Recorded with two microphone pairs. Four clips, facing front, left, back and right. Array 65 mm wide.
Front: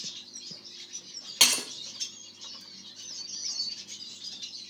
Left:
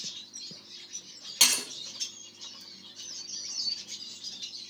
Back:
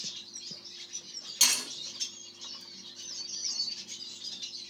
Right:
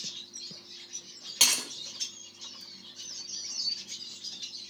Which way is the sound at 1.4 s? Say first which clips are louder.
Left 1 dB, front 5 dB; straight ahead.